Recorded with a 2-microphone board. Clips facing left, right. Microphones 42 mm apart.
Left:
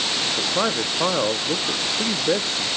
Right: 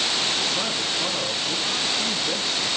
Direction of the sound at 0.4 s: 50° left (ahead or behind).